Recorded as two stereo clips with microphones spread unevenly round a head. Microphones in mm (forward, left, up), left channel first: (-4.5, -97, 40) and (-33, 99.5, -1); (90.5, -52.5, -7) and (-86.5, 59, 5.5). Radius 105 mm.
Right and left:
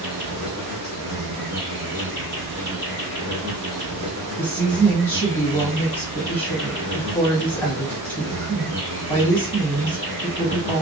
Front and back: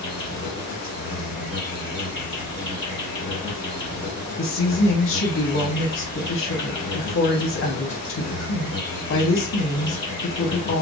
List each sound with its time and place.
0.0 s an insect: 5° left, 1.6 m
4.4 s a woman speaking: 5° right, 0.9 m